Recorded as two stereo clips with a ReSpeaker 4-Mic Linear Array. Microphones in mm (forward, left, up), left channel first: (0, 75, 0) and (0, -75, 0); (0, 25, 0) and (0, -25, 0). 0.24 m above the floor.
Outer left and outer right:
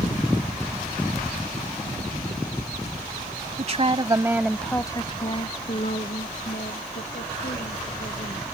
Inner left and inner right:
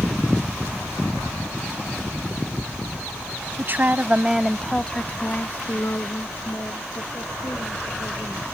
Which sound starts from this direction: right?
A woman speaking, at 3.6 s.